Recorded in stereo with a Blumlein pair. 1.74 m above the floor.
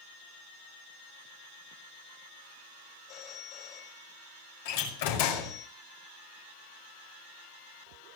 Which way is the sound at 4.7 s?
50° left.